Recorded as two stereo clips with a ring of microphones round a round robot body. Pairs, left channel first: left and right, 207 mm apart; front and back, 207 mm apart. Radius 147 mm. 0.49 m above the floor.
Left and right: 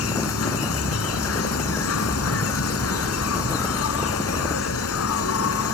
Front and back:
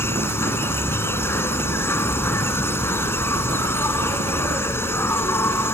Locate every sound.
0.0 s an insect: 80° left